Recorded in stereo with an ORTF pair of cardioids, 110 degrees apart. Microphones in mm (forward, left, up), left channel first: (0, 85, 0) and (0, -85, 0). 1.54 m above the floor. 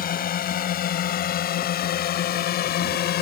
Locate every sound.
0.0 s a drone: 60° left; by 3.2 s 70° left